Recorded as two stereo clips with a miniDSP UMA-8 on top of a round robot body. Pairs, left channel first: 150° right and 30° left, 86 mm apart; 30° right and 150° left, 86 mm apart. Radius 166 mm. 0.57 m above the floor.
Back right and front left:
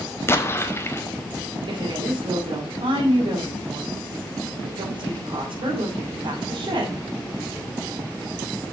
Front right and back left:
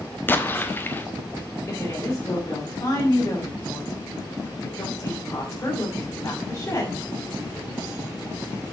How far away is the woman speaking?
About 3 m.